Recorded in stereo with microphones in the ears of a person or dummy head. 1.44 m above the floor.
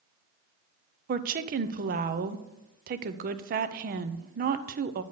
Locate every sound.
1.1 s a woman speaking: 45° right (ahead or behind), 0.7 m